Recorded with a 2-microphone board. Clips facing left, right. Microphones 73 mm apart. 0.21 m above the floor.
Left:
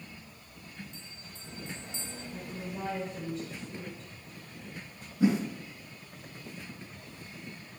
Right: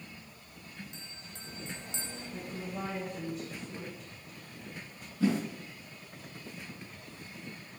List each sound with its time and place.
0.9 s a bell: 75° right (ahead or behind), 1.2 m
2.3 s a woman speaking: 10° right (ahead or behind), 3 m
5.2 s a whoosh: 15° left (ahead or behind), 2.5 m